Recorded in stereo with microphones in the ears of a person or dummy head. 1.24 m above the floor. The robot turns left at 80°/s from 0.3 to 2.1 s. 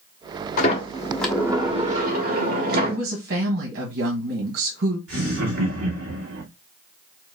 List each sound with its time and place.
0.6 s a sliding door: 60° left, 1.2 m; by 3.0 s 65° right, 1.2 m
2.9 s a woman speaking: 60° right (ahead or behind), 1.5 m
5.1 s laughter: 80° right, 2.0 m